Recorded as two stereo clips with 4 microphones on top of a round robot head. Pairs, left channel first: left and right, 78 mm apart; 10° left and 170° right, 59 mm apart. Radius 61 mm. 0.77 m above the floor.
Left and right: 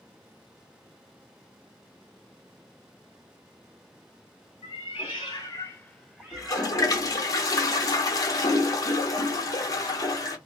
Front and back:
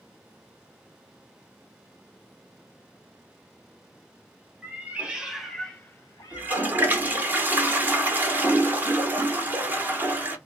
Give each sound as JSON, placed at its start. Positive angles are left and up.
{"t": 4.6, "sound": "a cat meowing", "azimuth_deg": 125, "distance_m": 0.9}
{"t": 6.3, "sound": "a toilet flushing", "azimuth_deg": 130, "distance_m": 0.9}